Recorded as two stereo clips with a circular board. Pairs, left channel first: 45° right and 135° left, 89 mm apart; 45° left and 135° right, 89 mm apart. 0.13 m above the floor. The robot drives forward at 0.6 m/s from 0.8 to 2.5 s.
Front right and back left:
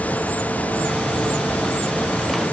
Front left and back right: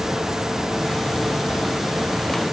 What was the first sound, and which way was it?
Only background noise.